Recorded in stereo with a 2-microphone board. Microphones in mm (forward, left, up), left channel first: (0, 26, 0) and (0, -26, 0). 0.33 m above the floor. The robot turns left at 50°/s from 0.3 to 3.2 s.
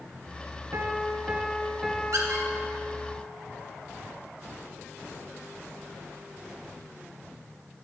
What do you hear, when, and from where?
0.7 s a piano: 120° right, 1.3 m; by 3.1 s 120° left, 1.3 m
2.1 s a squeak: 80° right, 2.5 m; by 2.5 s 70° right (ahead or behind), 2.5 m